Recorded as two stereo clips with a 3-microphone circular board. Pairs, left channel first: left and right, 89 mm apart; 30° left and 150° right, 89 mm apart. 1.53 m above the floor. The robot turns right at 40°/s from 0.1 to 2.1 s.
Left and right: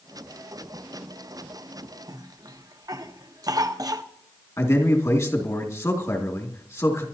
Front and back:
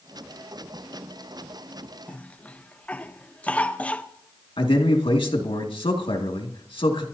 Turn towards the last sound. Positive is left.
turn(degrees=35)